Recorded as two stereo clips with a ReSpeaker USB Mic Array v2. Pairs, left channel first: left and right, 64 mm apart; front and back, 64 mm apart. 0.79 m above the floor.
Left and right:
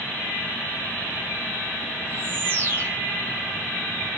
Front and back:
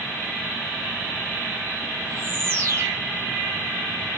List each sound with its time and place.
2.0 s a bird: 135° right, 1.4 m